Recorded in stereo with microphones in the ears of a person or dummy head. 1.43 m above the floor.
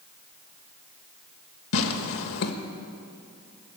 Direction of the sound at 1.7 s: 75° left (ahead or behind).